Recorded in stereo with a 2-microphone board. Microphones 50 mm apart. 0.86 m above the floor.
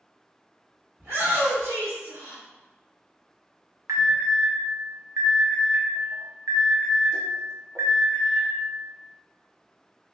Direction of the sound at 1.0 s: 60° right (ahead or behind).